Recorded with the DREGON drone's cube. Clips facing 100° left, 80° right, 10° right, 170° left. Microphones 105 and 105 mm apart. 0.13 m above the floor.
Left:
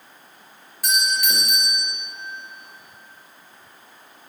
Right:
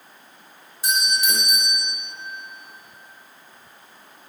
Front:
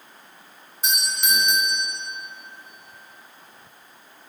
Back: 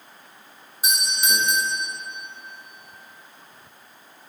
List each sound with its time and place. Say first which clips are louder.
0.8 s a doorbell: even, back 1 dB; 115° right, 2 m